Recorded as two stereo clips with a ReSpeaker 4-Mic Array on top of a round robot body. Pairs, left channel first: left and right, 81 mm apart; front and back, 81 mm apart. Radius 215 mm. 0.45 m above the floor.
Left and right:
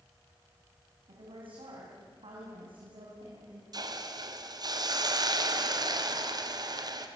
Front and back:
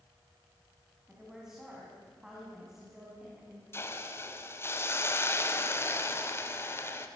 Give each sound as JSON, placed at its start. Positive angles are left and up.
{"t": 1.1, "sound": "a woman speaking", "azimuth_deg": -95, "distance_m": 6.0}
{"t": 3.7, "sound": "a hiss", "azimuth_deg": -55, "distance_m": 2.0}